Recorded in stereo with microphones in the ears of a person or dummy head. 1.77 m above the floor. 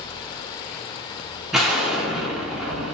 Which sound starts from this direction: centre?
An explosion, at 1.5 s.